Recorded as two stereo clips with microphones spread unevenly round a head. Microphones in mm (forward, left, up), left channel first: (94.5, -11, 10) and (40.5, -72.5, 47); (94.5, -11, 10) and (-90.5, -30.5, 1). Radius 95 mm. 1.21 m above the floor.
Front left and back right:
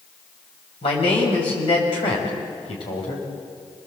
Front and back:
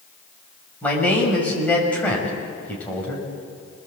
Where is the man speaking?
90° left, 5.5 m.